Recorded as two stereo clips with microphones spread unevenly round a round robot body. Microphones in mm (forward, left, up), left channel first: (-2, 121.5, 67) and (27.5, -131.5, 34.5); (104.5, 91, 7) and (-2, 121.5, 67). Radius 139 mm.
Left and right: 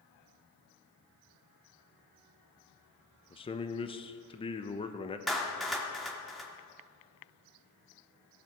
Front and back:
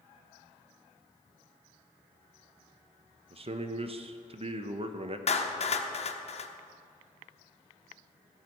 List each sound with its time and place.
3.3 s a man speaking: 145° left, 0.9 m
5.3 s a clap: 5° left, 1.3 m